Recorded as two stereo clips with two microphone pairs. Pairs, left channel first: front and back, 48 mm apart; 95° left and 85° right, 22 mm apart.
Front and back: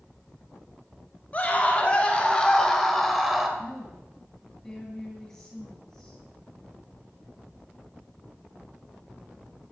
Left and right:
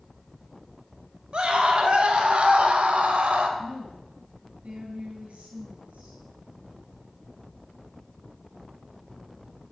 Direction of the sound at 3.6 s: 80° right.